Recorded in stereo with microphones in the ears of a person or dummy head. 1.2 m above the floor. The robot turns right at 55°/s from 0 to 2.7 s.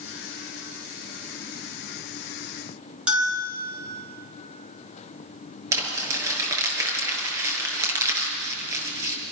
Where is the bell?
10° right (ahead or behind), 8 m.